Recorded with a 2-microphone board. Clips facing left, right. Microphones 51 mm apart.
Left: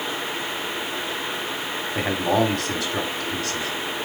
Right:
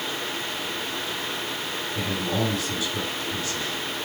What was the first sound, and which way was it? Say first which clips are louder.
A man speaking: left 7 dB; 60° left (ahead or behind).